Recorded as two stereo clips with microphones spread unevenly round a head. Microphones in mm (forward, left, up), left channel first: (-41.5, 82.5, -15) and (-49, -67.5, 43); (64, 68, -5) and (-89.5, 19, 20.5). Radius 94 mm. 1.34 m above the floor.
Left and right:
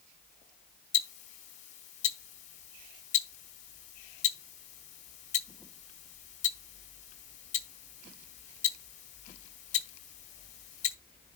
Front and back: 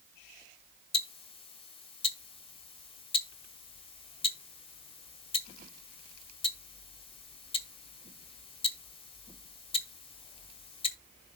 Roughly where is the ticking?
Ahead left.